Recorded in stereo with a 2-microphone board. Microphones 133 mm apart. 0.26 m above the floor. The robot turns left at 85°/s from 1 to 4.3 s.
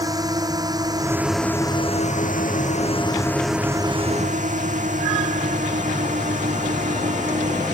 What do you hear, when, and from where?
0.0 s a drone: 25° right (ahead or behind); by 7.8 s 70° right (ahead or behind)